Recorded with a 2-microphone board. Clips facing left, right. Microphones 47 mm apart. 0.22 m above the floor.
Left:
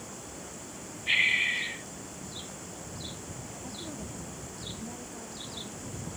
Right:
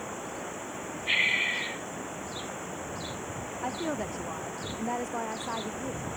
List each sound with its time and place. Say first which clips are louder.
0.0 s running water: right 7 dB; 35° right (ahead or behind)
1.1 s breathing: left 1 dB; 5° left (ahead or behind)
3.6 s a woman speaking: right 11 dB; 75° right (ahead or behind)